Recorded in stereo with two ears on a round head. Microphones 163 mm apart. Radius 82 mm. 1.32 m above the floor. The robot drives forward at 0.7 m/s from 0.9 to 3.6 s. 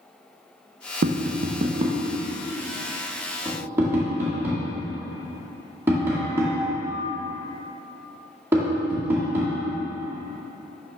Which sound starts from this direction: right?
Tapping, at 1.0 s.